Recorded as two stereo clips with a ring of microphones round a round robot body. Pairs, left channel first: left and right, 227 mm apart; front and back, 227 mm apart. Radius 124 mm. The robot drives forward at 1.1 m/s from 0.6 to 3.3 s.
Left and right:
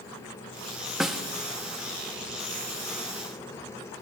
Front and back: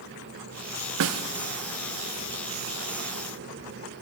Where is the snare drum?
Straight behind, 0.6 m.